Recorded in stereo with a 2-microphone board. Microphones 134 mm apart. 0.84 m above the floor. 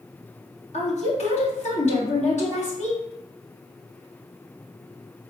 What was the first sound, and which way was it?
A woman speaking, 65° left (ahead or behind).